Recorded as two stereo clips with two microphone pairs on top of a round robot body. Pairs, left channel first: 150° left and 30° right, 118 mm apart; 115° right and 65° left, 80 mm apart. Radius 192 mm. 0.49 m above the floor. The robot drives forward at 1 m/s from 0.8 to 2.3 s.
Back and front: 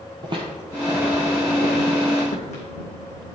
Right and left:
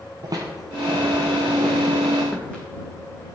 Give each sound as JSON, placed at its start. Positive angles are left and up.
{"t": 0.2, "sound": "footsteps", "azimuth_deg": 20, "distance_m": 1.1}